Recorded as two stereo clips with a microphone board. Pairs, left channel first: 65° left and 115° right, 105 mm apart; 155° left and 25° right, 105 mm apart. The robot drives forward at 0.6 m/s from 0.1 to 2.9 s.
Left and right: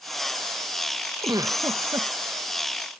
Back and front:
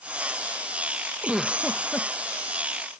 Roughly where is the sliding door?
I don't hear a sliding door.